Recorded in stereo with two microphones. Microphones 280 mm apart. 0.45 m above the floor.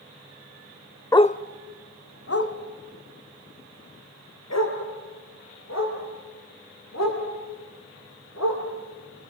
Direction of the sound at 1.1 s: 10° left (ahead or behind).